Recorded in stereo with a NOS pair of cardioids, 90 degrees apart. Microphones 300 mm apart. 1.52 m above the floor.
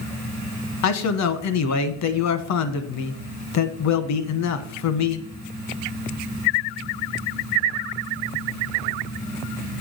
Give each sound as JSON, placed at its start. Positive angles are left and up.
{"t": 0.8, "sound": "a man speaking", "azimuth_deg": 65, "distance_m": 1.2}